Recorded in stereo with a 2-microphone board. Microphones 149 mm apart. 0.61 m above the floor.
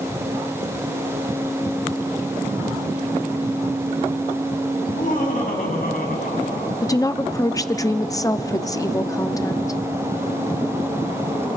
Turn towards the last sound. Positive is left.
turn(degrees=25)  # may be behind; listen again after turning